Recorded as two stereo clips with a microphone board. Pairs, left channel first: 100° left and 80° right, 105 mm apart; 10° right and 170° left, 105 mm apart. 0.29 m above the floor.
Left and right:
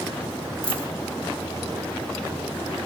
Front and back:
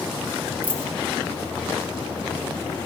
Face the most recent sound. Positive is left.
turn(degrees=-115)